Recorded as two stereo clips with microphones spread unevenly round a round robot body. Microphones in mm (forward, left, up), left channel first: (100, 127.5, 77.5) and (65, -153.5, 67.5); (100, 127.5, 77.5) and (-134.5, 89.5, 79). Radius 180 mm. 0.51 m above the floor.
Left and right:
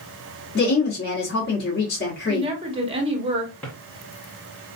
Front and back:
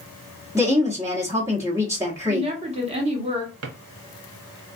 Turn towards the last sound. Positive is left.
turn(degrees=170)